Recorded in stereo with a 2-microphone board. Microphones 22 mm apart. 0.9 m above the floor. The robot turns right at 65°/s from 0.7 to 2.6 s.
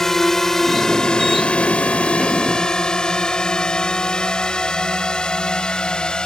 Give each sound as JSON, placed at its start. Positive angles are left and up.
{"t": 0.0, "sound": "a drone", "side_deg": 20}